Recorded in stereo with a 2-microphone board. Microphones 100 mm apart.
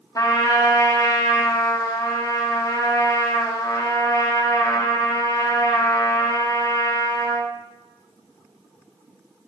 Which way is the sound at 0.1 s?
35° left (ahead or behind).